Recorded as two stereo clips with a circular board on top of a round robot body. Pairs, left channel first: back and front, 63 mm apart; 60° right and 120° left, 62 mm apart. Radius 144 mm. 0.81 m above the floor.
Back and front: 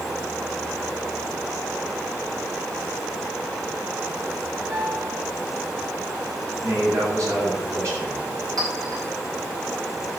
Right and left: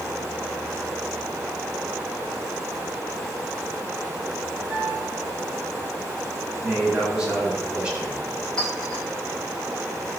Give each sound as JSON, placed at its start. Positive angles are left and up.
{"t": 4.7, "sound": "a piano", "azimuth_deg": 50, "distance_m": 9.0}
{"t": 6.6, "sound": "a man speaking", "azimuth_deg": 45, "distance_m": 7.5}
{"t": 8.6, "sound": "a clink", "azimuth_deg": 20, "distance_m": 5.5}